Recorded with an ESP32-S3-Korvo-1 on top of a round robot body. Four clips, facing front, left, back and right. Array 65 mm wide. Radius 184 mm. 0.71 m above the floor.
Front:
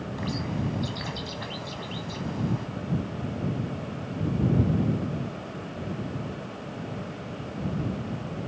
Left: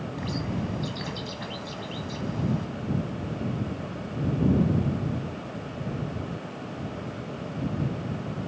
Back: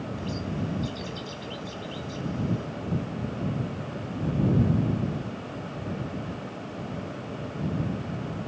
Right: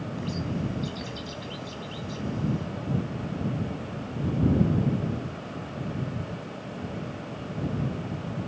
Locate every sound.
0.2 s a bird: 30° left